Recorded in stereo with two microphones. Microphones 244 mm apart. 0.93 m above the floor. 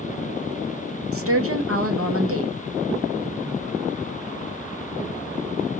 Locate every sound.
1.1 s a woman speaking: 65° right (ahead or behind), 0.9 m